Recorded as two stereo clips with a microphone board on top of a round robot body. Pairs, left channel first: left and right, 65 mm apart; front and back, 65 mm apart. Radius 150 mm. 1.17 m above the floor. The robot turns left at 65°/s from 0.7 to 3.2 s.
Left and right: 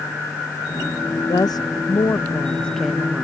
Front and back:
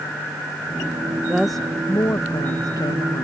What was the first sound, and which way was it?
A woman speaking, 105° left.